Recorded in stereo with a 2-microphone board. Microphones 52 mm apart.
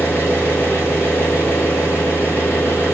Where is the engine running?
50° left (ahead or behind), 4.5 m.